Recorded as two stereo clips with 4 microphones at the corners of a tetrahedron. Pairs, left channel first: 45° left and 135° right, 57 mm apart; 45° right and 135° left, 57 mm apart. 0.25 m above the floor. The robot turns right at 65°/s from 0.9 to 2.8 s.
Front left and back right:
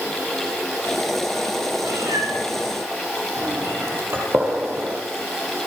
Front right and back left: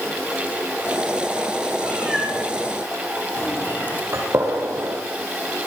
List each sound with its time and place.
1.8 s a cat meowing: 165° right, 5.5 m; by 4.0 s 100° right, 5.5 m
4.1 s a gunshot: 175° left, 7.5 m